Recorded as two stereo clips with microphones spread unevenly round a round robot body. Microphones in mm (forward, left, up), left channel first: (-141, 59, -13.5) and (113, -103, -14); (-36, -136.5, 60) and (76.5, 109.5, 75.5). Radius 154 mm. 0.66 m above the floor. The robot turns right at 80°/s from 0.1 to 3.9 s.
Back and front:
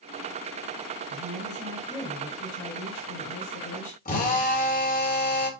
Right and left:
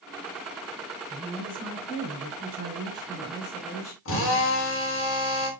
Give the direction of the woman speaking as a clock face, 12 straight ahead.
12 o'clock.